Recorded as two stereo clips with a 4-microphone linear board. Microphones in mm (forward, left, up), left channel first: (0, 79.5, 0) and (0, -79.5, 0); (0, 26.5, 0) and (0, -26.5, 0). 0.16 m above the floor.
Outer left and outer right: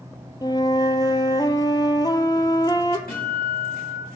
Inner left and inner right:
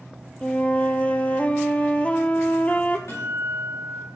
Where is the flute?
25° left (ahead or behind), 0.5 m.